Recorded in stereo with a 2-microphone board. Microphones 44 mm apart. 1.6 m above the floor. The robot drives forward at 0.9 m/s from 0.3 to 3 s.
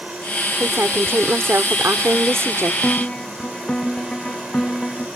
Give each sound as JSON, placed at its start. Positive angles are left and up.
{"t": 0.6, "sound": "a woman speaking", "side_deg": -65}
{"t": 2.8, "sound": "a piano", "side_deg": 20}